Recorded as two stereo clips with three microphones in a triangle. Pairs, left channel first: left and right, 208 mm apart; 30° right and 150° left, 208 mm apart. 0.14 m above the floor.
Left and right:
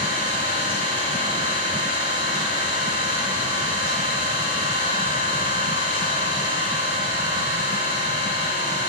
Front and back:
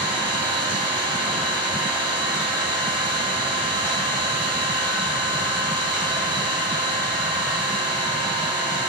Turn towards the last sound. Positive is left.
turn(degrees=70)